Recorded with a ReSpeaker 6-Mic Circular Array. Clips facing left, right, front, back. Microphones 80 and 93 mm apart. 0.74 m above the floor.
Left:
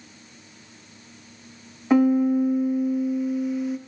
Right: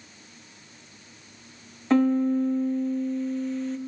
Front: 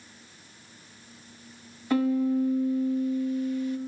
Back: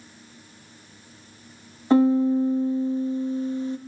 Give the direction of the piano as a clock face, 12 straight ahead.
7 o'clock.